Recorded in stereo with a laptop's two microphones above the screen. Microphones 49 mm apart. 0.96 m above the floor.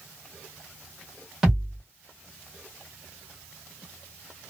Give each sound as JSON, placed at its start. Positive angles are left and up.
{"t": 1.4, "sound": "a thud", "side_deg": -5, "distance_m": 1.6}